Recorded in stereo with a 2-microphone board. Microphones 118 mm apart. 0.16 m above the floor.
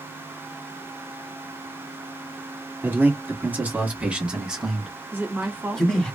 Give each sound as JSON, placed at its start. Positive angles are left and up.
{"t": 2.8, "sound": "a man speaking", "side_deg": -20, "distance_m": 1.7}
{"t": 5.1, "sound": "a woman speaking", "side_deg": -20, "distance_m": 1.5}